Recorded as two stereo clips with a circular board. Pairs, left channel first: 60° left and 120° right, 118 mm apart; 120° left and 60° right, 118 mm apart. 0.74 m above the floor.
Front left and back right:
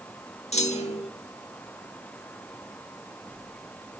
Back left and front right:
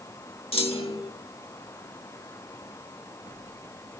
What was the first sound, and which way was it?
A clunk, 85° left.